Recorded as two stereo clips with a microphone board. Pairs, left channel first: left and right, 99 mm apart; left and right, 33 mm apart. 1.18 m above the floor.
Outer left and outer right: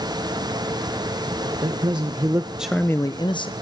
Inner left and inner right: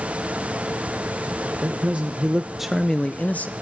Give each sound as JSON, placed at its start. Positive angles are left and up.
{"t": 1.6, "sound": "a man speaking", "side_deg": -60, "distance_m": 1.2}